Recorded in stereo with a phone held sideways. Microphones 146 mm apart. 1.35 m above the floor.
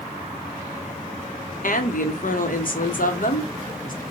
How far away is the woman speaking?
About 0.9 m.